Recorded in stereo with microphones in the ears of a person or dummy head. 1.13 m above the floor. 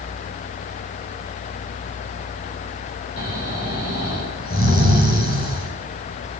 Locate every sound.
3.2 s snoring: 50° left (ahead or behind), 8.5 m